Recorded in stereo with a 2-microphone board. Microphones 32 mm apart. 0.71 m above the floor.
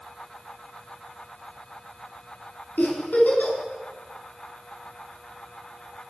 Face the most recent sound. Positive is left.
turn(degrees=70)  # may be behind; listen again after turning